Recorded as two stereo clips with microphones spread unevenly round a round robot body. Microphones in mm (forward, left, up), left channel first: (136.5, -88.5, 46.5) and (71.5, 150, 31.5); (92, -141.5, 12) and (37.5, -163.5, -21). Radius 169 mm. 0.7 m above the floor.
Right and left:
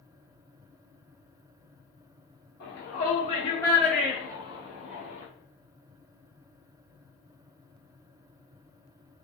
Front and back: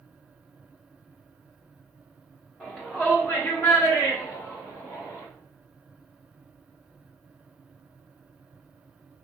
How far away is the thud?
No thud in this recording.